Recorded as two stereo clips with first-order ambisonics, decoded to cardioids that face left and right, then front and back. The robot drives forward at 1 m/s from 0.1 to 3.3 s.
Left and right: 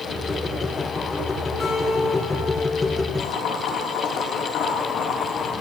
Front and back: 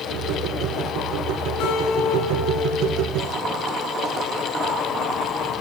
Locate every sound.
1.6 s a guitar: 20° left, 2.5 m; by 3.1 s 45° left, 1.3 m
3.2 s boiling: 125° left, 3.5 m